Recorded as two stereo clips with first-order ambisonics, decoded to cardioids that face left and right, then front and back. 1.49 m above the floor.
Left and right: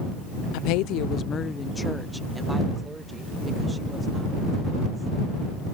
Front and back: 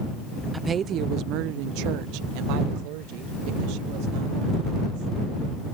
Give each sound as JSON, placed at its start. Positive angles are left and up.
{"t": 0.5, "sound": "a woman speaking", "azimuth_deg": 100}